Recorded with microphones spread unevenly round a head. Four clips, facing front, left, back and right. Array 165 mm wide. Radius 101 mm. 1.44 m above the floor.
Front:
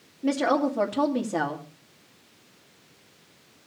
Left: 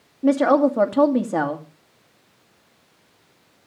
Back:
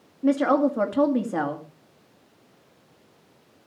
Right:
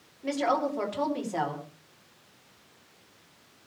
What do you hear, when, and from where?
0.2 s a woman speaking: 115° left, 2.5 m